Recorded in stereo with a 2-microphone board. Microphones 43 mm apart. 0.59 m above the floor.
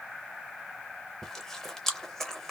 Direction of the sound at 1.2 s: 10° left (ahead or behind).